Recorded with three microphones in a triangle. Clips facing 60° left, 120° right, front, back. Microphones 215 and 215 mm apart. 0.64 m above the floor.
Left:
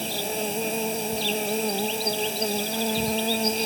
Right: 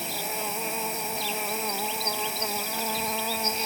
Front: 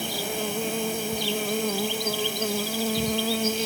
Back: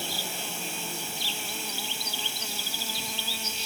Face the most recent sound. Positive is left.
turn(degrees=5)